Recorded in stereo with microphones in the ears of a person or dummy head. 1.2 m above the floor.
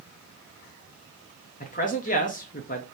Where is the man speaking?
40° left (ahead or behind), 0.8 m.